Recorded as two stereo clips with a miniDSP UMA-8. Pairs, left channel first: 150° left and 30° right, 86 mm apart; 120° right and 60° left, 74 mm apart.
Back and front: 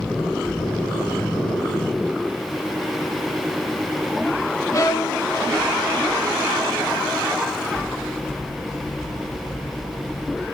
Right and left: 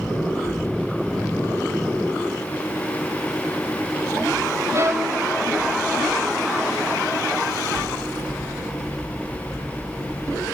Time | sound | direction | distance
4.7 | a violin | 100° left | 2.5 m